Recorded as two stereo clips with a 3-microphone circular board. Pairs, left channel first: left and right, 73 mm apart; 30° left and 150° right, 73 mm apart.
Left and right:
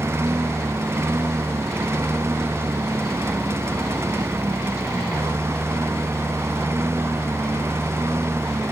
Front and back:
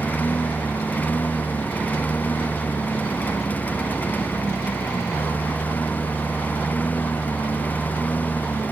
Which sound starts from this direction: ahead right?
A lawn mower, at 0.0 s.